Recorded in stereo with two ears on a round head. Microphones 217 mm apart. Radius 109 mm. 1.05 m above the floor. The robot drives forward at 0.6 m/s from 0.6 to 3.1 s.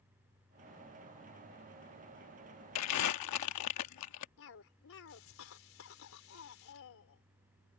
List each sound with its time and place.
2.8 s crumpling: 70° left (ahead or behind); by 4.3 s 80° left
4.4 s a cough: 60° left (ahead or behind)